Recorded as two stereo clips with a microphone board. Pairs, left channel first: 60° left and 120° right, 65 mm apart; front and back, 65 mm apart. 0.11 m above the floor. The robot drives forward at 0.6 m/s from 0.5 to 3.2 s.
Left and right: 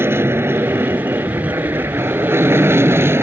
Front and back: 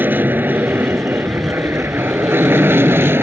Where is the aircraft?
140° right; by 3.2 s 145° right.